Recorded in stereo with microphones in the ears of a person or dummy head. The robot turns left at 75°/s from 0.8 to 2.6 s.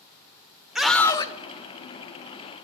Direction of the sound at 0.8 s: 175° right.